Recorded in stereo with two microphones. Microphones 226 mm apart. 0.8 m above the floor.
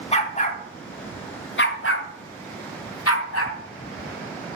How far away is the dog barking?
About 2.5 m.